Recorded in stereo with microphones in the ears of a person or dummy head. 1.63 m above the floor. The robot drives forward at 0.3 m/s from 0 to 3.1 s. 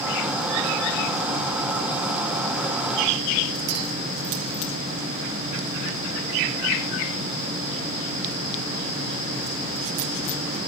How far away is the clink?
About 5 m.